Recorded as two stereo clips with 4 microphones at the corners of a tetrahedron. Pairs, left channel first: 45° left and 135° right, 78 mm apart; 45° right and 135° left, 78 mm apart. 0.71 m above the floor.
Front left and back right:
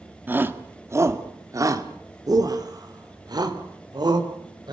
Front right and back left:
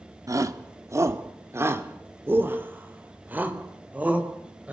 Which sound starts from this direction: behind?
A shout, at 0.3 s.